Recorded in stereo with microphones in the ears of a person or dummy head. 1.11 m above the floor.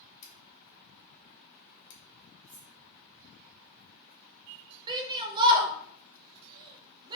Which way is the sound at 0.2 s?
60° left (ahead or behind).